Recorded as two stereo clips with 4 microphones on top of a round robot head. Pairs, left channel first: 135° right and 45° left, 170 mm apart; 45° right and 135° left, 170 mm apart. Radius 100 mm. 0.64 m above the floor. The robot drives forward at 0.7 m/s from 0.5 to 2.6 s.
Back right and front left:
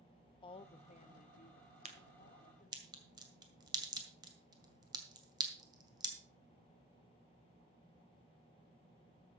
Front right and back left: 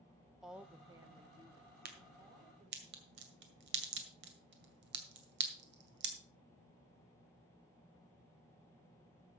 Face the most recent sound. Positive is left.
turn(degrees=115)